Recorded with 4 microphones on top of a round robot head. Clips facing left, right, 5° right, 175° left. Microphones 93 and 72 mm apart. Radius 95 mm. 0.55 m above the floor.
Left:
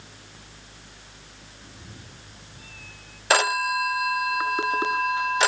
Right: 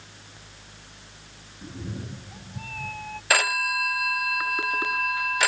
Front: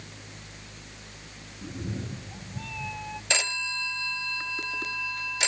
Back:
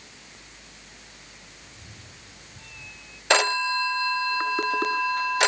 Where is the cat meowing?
35° right; by 3.2 s 50° right.